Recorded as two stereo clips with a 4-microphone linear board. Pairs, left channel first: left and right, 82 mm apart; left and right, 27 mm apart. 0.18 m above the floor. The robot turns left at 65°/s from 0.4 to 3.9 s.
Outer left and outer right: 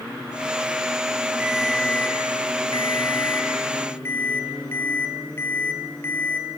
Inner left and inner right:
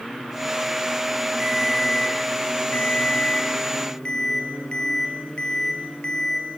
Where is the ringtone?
165° right, 2.5 m; by 6.6 s 30° left, 2.5 m.